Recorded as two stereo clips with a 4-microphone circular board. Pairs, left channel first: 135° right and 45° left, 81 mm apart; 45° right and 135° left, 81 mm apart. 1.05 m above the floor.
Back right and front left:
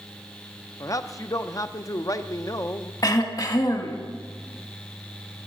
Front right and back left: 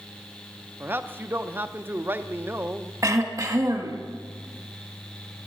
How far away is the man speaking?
About 0.7 m.